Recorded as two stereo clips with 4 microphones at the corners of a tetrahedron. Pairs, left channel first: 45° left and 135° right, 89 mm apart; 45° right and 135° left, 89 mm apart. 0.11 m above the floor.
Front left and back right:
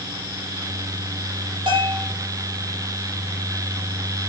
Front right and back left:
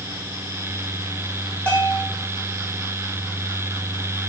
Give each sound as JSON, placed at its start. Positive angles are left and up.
{"t": 1.7, "sound": "a bell", "azimuth_deg": -120, "distance_m": 5.5}